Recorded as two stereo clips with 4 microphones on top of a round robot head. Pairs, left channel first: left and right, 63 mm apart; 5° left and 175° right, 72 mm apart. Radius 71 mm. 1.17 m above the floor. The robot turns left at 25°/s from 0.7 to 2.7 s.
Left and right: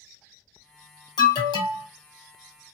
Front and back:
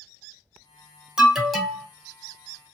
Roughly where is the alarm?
Left.